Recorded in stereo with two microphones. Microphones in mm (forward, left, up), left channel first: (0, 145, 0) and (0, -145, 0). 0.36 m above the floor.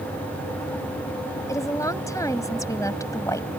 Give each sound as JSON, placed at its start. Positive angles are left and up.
{"t": 1.5, "sound": "a woman speaking", "side_deg": 10}